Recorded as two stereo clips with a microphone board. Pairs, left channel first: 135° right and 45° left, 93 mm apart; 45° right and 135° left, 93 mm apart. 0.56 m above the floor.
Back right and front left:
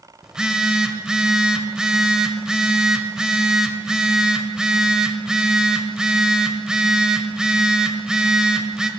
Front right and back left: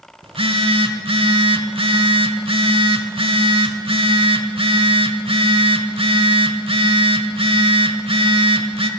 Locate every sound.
0.2 s a phone buzzing: 130° left, 1.1 m